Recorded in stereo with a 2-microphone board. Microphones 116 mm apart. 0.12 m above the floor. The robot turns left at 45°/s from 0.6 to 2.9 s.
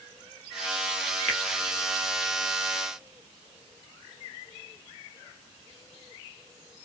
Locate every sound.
1.3 s a finger snap: 10° left (ahead or behind), 1.5 m